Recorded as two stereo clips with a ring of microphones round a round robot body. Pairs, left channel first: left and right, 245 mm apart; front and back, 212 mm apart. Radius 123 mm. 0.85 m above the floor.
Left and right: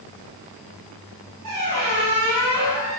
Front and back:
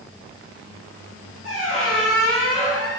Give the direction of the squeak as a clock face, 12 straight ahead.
3 o'clock.